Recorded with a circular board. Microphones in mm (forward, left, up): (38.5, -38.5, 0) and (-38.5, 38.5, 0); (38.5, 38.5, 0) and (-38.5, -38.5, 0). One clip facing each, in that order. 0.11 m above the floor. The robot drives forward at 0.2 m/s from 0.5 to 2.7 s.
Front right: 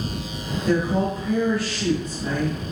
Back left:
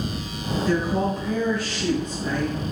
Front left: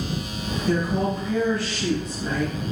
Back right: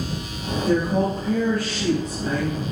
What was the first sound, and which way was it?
A woman speaking, 120° right.